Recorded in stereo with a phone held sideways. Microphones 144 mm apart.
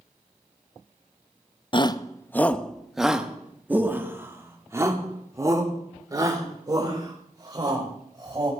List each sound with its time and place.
1.7 s a shout: 35° left (ahead or behind), 0.6 m; by 8.5 s 30° right (ahead or behind), 3.5 m